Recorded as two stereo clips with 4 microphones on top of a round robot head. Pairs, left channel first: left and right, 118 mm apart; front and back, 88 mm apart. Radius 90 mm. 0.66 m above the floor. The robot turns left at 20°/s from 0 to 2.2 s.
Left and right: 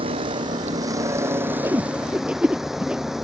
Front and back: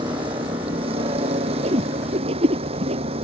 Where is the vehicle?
130° right; by 3.2 s 175° right.